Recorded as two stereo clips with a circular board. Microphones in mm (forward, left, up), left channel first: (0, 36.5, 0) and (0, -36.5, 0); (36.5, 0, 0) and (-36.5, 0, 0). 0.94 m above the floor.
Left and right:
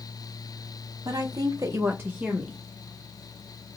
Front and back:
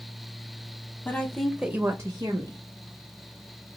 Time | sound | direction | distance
1.1 | a woman speaking | 60° right | 0.8 m